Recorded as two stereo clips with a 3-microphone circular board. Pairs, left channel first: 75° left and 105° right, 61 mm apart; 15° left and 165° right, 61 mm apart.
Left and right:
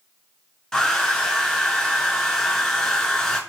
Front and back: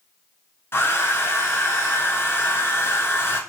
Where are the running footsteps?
I don't hear running footsteps.